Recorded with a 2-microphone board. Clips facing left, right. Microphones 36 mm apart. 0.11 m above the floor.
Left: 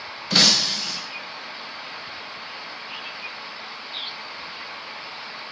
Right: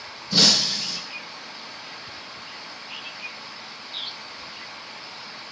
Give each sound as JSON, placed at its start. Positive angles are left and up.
{"t": 0.3, "sound": "breaking glass", "side_deg": 85, "distance_m": 4.5}